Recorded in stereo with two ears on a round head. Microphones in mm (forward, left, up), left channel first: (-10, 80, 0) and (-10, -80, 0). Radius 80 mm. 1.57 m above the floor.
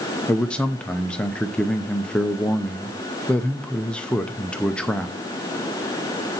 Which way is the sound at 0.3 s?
5° left (ahead or behind).